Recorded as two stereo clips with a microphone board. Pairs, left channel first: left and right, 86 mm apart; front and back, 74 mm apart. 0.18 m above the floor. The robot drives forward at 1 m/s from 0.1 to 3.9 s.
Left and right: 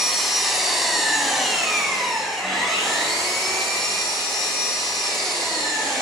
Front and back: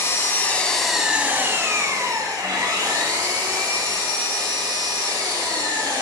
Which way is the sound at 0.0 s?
5° right.